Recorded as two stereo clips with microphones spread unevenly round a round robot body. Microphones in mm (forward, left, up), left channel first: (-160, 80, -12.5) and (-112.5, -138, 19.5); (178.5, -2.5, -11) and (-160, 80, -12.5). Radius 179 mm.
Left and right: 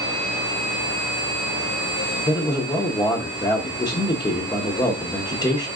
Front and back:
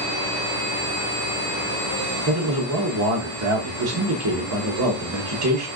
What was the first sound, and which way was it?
A man speaking, 155° left.